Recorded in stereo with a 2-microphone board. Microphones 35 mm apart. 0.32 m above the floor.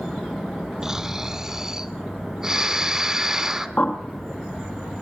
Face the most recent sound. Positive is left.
turn(degrees=45)  # may be behind; listen again after turning